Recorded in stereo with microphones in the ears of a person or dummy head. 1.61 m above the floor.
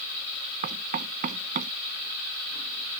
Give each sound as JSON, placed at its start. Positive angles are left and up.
{"t": 0.6, "sound": "knocking", "side_deg": -45}